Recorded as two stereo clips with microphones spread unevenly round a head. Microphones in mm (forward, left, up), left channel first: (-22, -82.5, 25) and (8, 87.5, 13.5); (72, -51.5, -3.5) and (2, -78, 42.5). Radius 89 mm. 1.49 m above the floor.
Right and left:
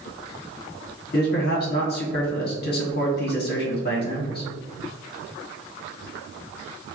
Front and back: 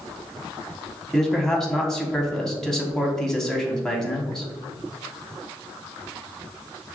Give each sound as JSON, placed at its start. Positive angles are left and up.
{"t": 1.1, "sound": "a man speaking", "azimuth_deg": -65, "distance_m": 1.2}